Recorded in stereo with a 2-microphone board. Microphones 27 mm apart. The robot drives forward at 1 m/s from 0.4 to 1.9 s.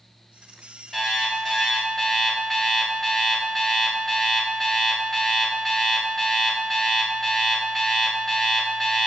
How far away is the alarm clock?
About 2.5 m.